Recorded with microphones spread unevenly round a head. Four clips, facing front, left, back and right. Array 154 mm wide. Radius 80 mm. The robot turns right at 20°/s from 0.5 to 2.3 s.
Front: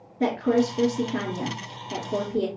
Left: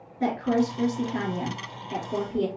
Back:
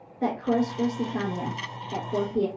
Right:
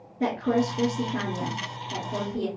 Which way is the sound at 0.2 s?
15° right.